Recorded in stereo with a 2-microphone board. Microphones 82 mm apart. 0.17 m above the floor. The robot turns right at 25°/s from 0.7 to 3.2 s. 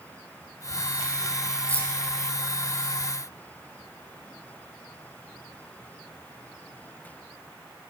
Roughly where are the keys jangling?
Centre.